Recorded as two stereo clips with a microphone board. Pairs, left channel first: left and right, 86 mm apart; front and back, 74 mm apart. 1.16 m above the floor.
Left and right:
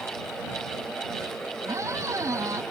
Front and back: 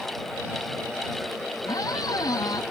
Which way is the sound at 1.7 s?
35° right.